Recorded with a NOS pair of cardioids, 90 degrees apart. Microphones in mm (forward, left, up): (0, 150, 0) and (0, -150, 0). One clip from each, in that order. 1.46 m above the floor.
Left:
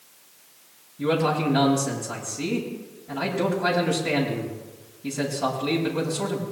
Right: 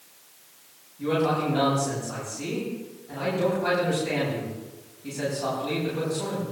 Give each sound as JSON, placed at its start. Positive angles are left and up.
{"t": 1.0, "sound": "a man speaking", "azimuth_deg": 65, "distance_m": 7.5}